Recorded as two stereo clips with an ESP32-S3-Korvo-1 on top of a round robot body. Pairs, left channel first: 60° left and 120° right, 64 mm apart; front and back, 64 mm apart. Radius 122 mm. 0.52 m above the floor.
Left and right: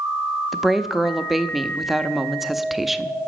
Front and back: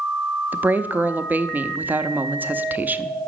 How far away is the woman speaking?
About 0.9 m.